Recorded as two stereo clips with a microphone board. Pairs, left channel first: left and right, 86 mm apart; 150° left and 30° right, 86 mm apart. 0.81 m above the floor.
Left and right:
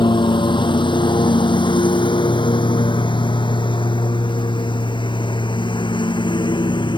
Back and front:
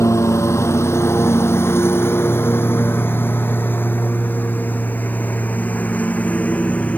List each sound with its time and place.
0.0 s a lawn mower: 100° left; by 7.0 s 80° left